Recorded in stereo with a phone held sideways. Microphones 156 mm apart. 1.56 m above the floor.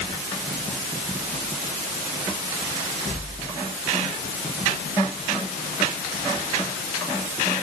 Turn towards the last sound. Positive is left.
No sound to turn to.